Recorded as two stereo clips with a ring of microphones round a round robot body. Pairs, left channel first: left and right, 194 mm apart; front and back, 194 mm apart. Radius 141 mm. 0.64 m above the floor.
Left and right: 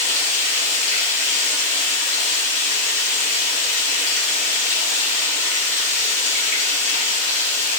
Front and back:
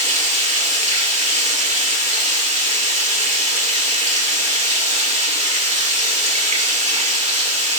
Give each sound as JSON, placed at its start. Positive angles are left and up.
{"t": 0.0, "sound": "running water", "azimuth_deg": 130, "distance_m": 2.0}